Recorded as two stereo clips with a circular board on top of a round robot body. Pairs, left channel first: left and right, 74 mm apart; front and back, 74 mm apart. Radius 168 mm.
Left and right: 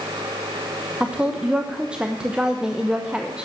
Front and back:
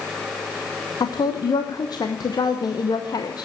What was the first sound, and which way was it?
A woman speaking, 15° right.